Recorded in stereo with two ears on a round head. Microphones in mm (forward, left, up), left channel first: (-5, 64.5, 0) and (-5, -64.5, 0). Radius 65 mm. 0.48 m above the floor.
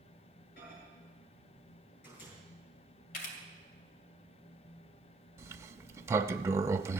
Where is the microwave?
75° left (ahead or behind), 7.5 m.